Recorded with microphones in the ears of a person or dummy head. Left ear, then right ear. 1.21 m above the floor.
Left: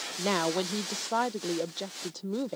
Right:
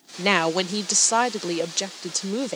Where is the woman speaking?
70° right (ahead or behind).